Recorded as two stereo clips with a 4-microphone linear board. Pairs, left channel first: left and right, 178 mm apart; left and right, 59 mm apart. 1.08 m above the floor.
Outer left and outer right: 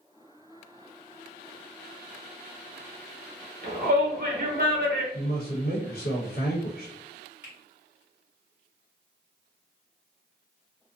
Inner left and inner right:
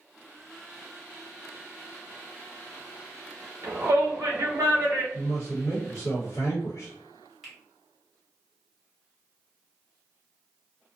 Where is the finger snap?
10° right (ahead or behind), 1.1 m.